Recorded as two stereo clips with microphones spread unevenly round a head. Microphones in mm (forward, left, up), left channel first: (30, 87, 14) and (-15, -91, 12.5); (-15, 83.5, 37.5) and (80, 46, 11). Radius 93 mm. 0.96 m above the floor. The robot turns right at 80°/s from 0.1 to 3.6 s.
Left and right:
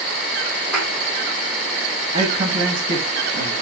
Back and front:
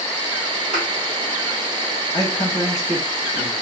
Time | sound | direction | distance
0.7 | a thud | 10° right | 2 m
2.1 | a man speaking | 160° right | 1.2 m